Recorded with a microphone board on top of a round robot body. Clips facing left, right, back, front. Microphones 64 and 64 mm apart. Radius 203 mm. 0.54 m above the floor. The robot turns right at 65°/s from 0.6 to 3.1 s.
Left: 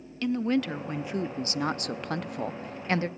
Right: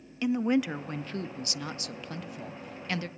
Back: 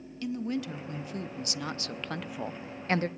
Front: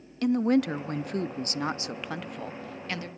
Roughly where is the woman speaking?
Ahead.